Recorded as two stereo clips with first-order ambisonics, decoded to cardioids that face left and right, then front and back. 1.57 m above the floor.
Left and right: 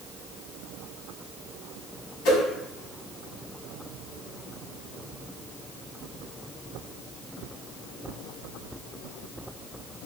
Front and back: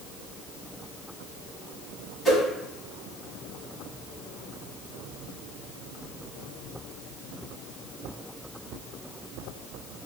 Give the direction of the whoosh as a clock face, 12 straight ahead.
9 o'clock.